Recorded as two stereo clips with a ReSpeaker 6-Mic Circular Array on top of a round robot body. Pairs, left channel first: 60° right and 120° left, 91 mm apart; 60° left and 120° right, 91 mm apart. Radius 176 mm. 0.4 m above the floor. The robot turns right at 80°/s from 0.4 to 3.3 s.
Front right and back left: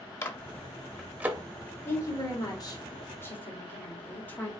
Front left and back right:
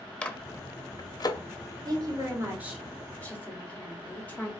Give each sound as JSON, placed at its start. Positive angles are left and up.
{"t": 0.2, "sound": "a microwave", "azimuth_deg": -10, "distance_m": 0.9}
{"t": 1.9, "sound": "a woman speaking", "azimuth_deg": -115, "distance_m": 1.8}